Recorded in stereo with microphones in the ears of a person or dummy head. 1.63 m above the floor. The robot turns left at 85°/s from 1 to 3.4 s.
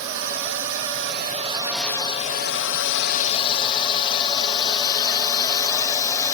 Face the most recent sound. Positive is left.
turn(degrees=10)  # may be behind; listen again after turning